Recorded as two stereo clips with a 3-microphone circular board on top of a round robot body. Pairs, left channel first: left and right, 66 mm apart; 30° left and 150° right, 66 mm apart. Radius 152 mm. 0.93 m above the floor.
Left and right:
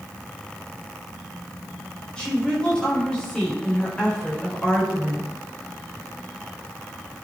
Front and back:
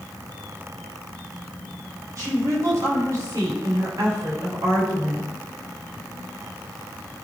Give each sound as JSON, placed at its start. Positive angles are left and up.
{"t": 2.2, "sound": "a woman speaking", "azimuth_deg": 170, "distance_m": 4.5}